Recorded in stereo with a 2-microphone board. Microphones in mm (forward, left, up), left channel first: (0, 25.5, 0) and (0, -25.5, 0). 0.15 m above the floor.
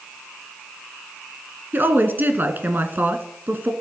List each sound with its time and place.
1.7 s a woman speaking: 40° right (ahead or behind), 1.8 m